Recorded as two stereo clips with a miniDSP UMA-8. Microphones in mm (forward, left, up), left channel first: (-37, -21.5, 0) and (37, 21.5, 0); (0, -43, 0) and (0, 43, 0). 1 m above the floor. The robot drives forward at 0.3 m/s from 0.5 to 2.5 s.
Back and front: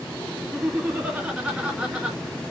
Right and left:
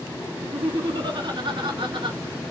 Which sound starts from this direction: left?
Laughter, at 0.4 s.